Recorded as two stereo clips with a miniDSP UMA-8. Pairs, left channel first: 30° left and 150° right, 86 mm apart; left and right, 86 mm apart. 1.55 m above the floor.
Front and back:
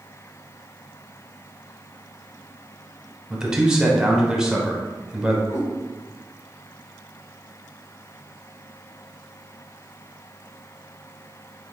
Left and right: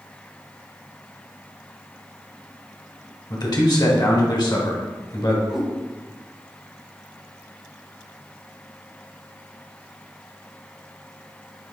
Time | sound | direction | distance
3.3 | a man speaking | 130° left | 1.0 m
5.5 | a cat meowing | 5° right | 1.6 m